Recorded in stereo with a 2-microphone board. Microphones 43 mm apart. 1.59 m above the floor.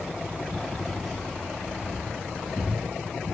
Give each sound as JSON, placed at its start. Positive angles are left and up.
{"t": 0.6, "sound": "keys jangling", "side_deg": 5, "distance_m": 5.5}